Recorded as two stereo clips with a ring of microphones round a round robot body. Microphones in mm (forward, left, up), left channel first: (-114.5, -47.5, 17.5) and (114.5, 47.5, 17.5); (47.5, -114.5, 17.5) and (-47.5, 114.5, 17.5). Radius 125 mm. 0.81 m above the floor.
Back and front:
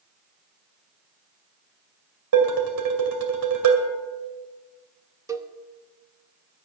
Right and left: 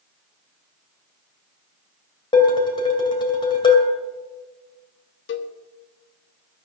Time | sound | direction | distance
2.3 | dishes clattering | 5° left | 2.5 m
5.3 | a cowbell | 50° right | 0.9 m